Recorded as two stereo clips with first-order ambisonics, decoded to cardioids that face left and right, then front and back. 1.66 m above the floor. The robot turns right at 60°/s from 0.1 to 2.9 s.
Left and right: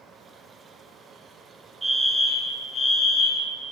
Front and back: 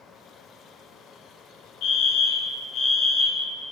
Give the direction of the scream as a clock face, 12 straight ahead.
No scream in this recording.